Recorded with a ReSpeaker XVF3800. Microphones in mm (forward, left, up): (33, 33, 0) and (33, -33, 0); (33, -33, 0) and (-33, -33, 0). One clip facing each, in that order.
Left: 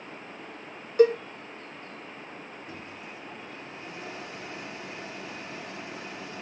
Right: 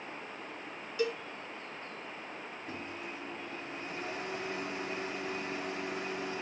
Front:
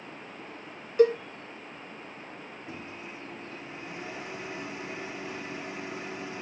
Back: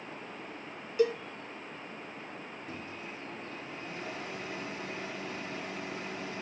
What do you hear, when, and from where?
1.0 s a cowbell: 40° left, 0.6 m
2.7 s a microwave: 65° right, 3.5 m